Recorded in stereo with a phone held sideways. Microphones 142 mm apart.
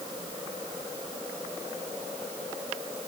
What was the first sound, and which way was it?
Only background noise.